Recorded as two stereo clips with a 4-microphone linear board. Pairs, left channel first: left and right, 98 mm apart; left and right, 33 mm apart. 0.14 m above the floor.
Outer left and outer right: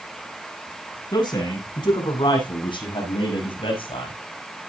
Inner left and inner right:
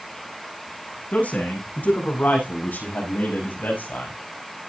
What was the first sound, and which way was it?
A man speaking, 50° left (ahead or behind).